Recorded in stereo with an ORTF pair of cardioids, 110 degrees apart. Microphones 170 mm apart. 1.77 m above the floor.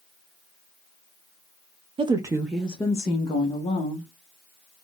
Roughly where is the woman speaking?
Ahead right.